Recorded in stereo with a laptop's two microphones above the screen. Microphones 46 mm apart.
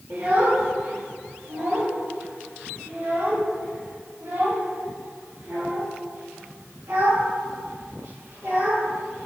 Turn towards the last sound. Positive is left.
turn(degrees=-80)